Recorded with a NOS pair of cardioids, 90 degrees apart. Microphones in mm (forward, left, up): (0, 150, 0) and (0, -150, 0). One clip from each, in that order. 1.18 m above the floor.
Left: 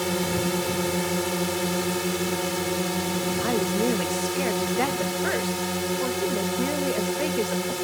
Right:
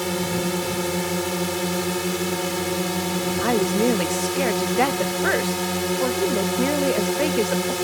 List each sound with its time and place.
0.0 s a drone: 10° right; by 7.8 s 30° right
3.4 s a woman speaking: 30° right